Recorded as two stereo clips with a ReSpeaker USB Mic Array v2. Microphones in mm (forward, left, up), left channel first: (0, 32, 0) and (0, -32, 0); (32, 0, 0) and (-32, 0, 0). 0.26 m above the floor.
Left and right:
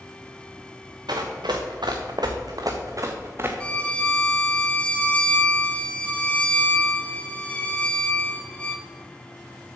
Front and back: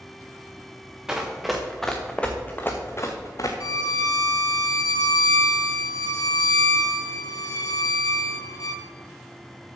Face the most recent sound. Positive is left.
turn(degrees=15)